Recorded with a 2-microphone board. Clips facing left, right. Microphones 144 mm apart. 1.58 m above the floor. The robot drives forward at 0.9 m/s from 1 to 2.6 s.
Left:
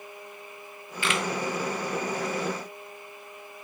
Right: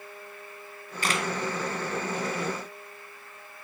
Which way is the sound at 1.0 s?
40° right (ahead or behind).